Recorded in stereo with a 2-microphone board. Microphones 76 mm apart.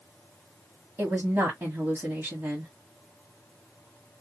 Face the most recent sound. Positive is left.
turn(degrees=-30)  # may be behind; listen again after turning